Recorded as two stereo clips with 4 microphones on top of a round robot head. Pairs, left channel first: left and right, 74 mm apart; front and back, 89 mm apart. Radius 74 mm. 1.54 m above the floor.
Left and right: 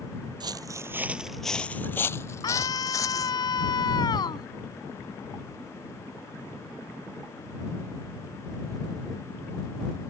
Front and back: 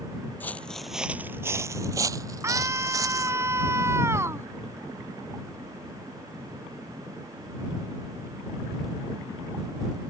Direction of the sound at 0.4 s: 75° right.